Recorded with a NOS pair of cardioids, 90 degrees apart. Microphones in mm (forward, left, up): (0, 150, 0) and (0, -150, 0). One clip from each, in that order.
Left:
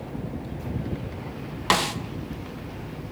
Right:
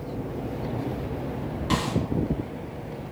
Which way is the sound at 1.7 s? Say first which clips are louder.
Left 6 dB; 60° left.